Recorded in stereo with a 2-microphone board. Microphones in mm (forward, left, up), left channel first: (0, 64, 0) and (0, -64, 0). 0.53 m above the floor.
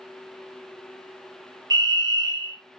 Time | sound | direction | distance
1.7 | a fire alarm | 35° right (ahead or behind) | 2.5 m